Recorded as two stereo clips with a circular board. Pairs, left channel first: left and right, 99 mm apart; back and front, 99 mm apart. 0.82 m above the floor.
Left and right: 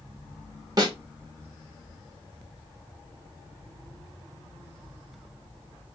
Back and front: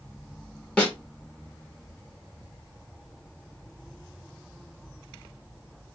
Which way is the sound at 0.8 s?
110° right.